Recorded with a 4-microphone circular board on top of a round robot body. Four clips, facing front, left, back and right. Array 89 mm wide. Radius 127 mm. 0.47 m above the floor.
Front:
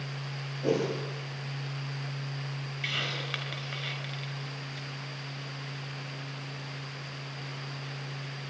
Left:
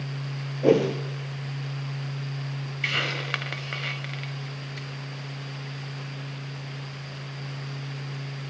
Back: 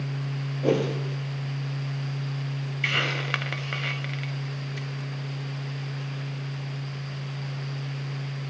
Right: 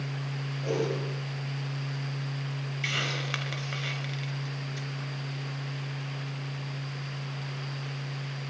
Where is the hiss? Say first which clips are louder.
Left 4 dB, back 8 dB; 160° left, 1.8 m.